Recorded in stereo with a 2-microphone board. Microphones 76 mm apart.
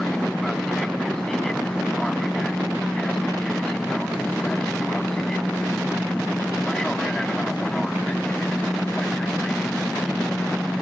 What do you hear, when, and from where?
0.0 s an aircraft: 10° left (ahead or behind)